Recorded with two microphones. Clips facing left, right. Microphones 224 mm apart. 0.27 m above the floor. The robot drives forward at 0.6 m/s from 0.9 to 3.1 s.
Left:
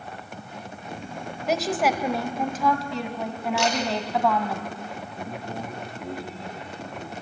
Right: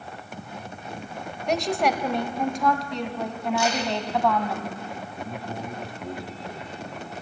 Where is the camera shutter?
75° left (ahead or behind), 6 m.